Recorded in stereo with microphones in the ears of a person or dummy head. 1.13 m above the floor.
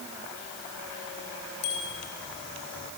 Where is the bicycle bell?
60° left (ahead or behind), 5.5 m.